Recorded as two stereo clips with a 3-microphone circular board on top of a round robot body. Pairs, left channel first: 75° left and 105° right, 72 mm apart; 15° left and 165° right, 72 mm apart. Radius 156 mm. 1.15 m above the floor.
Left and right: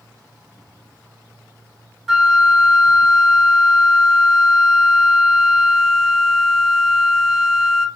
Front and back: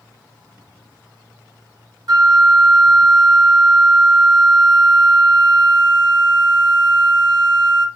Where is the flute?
170° left, 0.9 m.